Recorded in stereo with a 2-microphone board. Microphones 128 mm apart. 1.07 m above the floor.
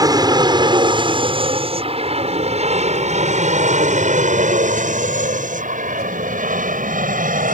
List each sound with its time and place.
0.0 s an aircraft: 30° right (ahead or behind); by 7.6 s 75° right (ahead or behind)